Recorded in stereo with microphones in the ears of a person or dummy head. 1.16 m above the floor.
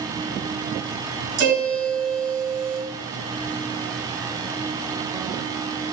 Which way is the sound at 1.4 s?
65° right (ahead or behind).